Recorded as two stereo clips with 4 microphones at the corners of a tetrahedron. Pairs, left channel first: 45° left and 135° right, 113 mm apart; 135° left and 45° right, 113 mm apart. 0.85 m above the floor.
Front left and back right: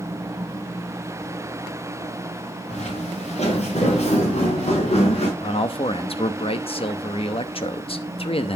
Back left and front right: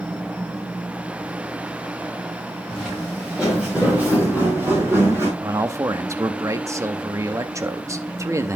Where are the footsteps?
40° left, 6.5 m; by 5.3 s 20° left, 6 m.